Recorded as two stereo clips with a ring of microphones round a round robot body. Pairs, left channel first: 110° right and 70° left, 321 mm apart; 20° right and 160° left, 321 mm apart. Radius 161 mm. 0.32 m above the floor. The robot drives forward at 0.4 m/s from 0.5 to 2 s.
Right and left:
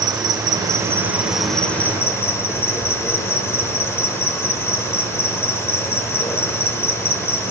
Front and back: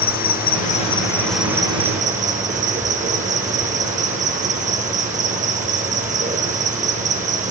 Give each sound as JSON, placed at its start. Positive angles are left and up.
{"t": 0.0, "sound": "an insect", "azimuth_deg": 0, "distance_m": 0.7}